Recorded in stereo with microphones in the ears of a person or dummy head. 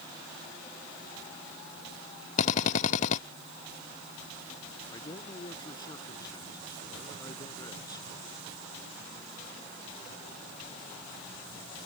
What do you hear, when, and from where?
2.4 s a drill: 50° left (ahead or behind)
4.9 s a man speaking: 25° left (ahead or behind)